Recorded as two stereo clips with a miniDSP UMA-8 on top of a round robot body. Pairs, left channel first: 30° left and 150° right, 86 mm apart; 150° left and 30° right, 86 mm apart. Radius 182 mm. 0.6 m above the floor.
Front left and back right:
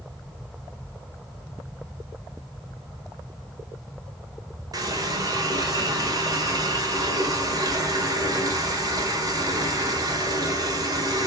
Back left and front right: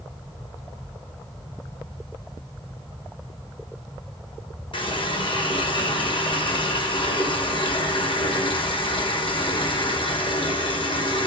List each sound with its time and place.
4.7 s a running tap: 165° left, 1.9 m